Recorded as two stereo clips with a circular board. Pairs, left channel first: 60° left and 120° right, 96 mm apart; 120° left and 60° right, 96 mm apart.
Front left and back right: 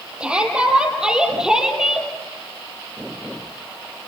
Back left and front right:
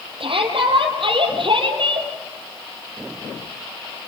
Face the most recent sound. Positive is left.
turn(degrees=-35)